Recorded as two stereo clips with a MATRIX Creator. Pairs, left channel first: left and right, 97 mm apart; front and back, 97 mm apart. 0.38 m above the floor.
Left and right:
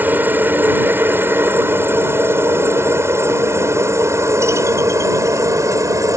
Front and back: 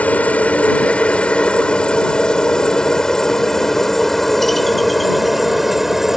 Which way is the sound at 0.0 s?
50° right.